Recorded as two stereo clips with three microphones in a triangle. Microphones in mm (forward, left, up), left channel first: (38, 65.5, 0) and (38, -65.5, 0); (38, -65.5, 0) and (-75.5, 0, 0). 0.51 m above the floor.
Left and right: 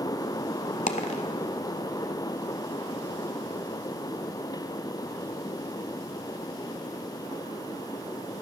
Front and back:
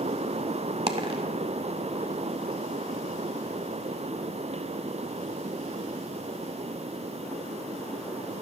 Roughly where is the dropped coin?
Left.